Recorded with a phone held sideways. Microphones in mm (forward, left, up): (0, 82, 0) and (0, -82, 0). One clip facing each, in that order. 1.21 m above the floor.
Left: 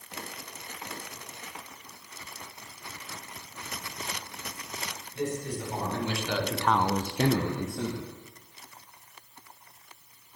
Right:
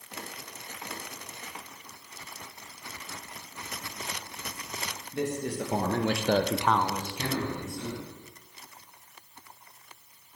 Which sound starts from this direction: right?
A man speaking, at 5.1 s.